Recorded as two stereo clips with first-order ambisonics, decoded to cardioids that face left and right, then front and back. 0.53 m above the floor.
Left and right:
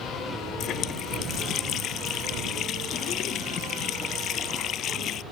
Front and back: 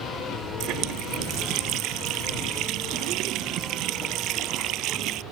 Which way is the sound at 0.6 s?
140° left.